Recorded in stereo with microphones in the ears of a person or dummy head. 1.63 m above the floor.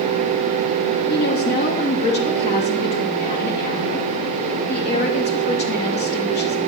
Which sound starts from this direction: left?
A woman speaking, at 1.1 s.